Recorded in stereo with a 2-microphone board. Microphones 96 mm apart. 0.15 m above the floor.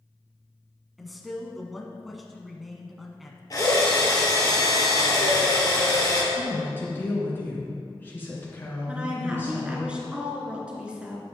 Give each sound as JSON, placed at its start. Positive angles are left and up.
{"t": 1.0, "sound": "a man speaking", "side_deg": 0, "distance_m": 1.2}
{"t": 3.5, "sound": "a drill", "side_deg": 40, "distance_m": 2.5}
{"t": 6.3, "sound": "a woman speaking", "side_deg": 20, "distance_m": 2.5}
{"t": 8.9, "sound": "a woman speaking", "side_deg": -10, "distance_m": 1.9}